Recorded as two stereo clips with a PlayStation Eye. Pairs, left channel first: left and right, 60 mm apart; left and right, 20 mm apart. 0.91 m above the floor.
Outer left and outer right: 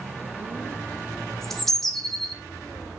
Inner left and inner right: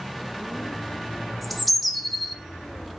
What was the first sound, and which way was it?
A bird, 5° left (ahead or behind).